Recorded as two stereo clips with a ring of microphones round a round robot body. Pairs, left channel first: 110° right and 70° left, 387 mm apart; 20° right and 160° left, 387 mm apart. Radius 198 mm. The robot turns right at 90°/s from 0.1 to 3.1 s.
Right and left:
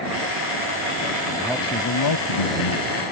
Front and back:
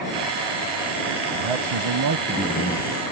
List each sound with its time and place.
1.4 s a man speaking: 145° left; by 2.9 s 75° right